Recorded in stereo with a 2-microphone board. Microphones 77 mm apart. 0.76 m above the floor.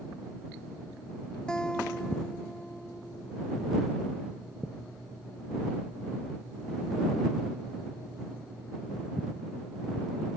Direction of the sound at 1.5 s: 10° left (ahead or behind).